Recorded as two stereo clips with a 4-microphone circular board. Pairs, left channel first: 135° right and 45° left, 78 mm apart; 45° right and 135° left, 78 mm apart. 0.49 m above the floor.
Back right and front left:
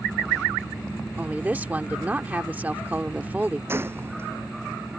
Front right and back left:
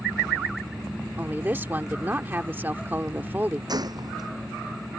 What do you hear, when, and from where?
1.2 s a woman speaking: 95° left
3.7 s a gunshot: 105° left